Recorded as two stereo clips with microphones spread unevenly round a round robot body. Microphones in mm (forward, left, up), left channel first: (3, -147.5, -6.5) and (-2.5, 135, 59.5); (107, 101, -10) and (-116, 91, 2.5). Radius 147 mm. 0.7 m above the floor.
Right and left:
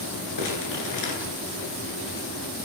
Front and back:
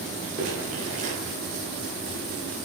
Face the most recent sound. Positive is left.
turn(degrees=-110)